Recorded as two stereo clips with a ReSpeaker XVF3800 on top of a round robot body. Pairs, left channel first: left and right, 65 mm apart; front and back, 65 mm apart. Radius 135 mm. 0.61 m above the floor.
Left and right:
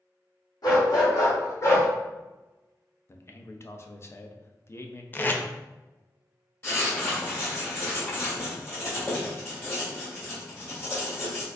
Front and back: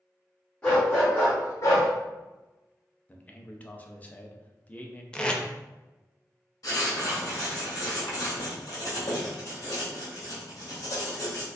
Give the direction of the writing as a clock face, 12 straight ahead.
11 o'clock.